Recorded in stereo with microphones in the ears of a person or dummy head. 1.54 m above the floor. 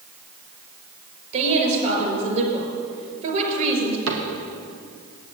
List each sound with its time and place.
1.3 s a woman speaking: 45° right (ahead or behind), 5 m
4.1 s a cupboard door: 75° right (ahead or behind), 1.8 m